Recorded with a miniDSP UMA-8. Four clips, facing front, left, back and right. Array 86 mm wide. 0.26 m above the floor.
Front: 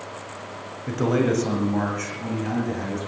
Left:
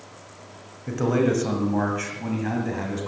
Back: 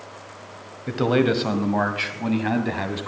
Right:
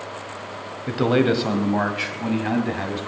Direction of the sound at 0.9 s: 125° right.